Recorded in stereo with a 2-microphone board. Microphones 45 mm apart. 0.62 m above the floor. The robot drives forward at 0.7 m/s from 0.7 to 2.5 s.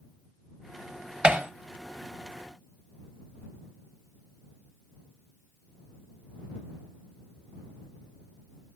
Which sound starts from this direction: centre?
Hammering, at 1.2 s.